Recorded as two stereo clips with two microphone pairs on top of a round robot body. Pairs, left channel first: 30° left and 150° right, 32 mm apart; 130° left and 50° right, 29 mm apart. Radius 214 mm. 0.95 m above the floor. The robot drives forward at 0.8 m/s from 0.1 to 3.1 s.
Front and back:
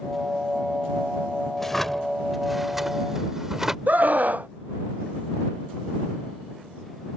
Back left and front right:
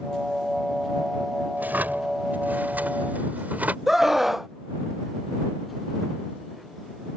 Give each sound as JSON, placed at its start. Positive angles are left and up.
{"t": 1.6, "sound": "a drawer", "azimuth_deg": -55}
{"t": 3.9, "sound": "a scream", "azimuth_deg": -130}